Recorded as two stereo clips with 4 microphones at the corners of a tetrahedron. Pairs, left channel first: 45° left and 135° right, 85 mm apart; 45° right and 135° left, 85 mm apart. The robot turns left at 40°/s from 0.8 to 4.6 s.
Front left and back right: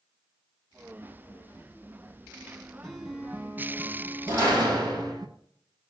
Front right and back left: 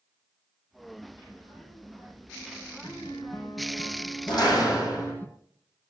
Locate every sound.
2.8 s a guitar: 35° right, 1.8 m; by 5.3 s 105° right, 1.8 m
4.3 s a door slam: 80° right, 8.5 m; by 5.1 s 95° right, 8.5 m